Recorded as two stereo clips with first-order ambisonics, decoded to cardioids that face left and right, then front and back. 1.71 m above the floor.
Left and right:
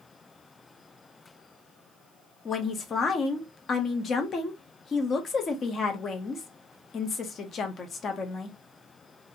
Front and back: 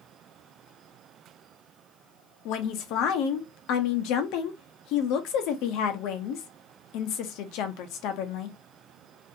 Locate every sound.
2.5 s a woman speaking: 25° left, 0.6 m